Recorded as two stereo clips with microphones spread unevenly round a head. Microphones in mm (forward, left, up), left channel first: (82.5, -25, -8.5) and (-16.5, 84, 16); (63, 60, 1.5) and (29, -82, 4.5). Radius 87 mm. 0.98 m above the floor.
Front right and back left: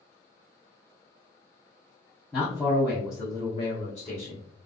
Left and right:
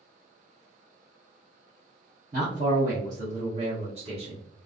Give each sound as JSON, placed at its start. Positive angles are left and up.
{"t": 2.3, "sound": "a man speaking", "azimuth_deg": -135, "distance_m": 1.1}